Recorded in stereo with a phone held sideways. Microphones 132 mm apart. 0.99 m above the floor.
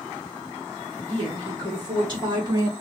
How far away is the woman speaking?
About 2.5 m.